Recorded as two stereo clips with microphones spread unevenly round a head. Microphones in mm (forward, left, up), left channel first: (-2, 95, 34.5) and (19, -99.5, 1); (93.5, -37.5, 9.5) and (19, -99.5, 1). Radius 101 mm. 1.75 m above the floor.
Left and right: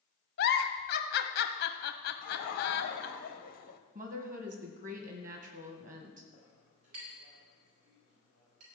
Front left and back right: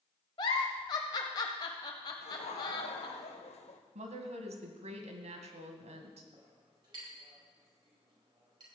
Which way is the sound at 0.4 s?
85° left.